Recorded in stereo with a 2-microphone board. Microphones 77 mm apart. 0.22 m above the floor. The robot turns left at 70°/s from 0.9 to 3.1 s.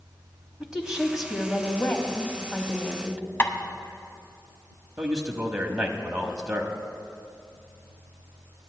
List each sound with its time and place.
0.6 s a woman speaking: 10° right (ahead or behind), 1.1 m; by 3.2 s 20° left (ahead or behind), 1.1 m
3.4 s tapping: 35° left (ahead or behind), 0.8 m
5.0 s a man speaking: 10° right (ahead or behind), 1.0 m